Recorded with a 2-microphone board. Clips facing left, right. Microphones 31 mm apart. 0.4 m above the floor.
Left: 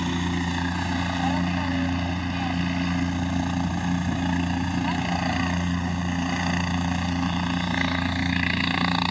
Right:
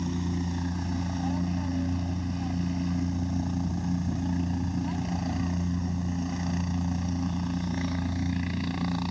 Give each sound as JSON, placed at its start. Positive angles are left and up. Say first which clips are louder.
{"t": 0.0, "sound": "a helicopter", "louder": "left 5 dB", "side_deg": 65}